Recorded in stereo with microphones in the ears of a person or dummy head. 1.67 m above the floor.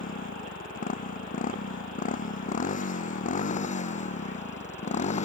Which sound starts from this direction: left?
A motorcycle, at 0.0 s.